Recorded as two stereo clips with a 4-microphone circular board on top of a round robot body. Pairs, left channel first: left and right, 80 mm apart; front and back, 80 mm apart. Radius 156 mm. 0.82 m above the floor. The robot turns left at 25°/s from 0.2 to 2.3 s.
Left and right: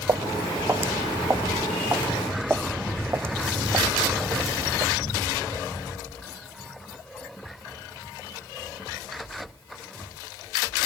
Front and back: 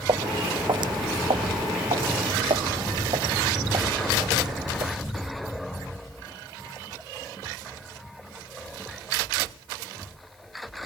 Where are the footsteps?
145° right; by 4.9 s 135° right.